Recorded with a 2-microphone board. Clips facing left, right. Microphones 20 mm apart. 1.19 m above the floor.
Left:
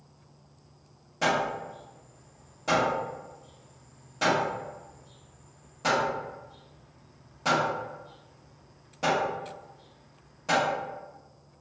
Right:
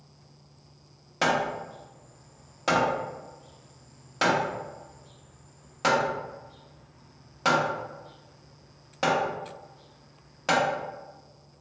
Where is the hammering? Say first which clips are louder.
Right 1 dB; 45° right (ahead or behind), 0.8 m.